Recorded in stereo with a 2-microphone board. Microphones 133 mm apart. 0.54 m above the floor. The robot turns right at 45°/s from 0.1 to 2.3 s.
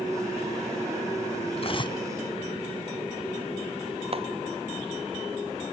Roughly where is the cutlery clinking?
Left.